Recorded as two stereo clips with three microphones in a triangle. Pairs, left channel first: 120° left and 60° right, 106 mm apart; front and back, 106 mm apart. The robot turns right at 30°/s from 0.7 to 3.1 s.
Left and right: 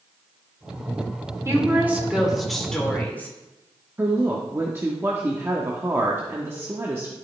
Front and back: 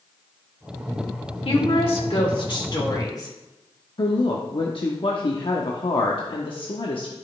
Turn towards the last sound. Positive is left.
turn(degrees=0)